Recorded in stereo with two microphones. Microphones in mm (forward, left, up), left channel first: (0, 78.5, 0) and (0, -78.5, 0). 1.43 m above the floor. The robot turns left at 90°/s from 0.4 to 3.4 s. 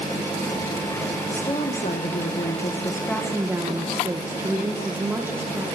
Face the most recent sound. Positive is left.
turn(degrees=-15)